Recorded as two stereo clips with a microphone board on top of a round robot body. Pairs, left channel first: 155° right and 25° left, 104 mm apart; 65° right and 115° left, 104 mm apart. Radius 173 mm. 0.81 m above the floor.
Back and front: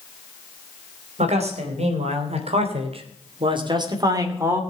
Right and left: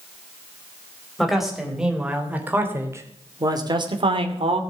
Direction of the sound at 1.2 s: 25° left.